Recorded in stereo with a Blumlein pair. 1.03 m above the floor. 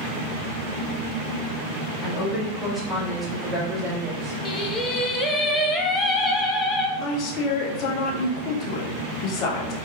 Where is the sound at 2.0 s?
10° left, 1.7 m; by 4.3 s 25° right, 2 m.